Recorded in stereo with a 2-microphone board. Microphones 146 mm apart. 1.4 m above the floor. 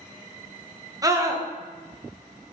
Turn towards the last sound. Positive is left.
turn(degrees=-25)  # may be behind; listen again after turning